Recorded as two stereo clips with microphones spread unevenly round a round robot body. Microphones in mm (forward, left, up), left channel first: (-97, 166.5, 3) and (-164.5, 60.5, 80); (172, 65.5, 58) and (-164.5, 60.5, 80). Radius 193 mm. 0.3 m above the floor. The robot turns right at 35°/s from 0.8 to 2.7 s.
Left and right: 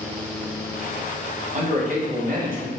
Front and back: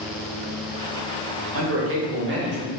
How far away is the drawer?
No drawer in this recording.